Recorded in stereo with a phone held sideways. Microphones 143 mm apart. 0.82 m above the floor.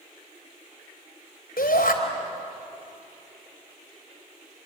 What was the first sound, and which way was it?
A shout, 80° left.